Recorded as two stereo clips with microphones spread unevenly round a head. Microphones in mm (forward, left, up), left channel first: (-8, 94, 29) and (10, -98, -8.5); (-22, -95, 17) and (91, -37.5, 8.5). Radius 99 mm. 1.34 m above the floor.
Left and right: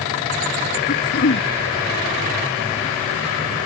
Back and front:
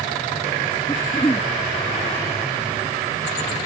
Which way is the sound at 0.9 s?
135° left.